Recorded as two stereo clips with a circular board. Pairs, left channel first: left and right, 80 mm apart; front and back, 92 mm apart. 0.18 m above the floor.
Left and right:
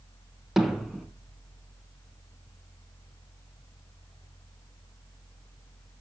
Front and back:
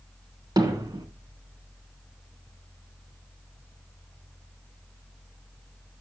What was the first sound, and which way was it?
Hammering, 175° right.